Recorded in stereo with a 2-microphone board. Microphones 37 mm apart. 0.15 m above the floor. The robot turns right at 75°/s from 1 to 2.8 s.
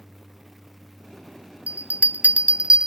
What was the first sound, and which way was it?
A bell, 45° right (ahead or behind).